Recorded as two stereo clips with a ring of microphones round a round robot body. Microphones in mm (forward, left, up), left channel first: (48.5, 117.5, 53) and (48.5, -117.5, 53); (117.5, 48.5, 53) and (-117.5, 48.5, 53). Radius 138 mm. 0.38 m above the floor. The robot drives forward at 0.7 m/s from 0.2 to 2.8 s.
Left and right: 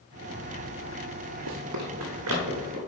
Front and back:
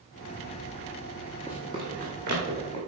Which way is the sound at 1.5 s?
95° right.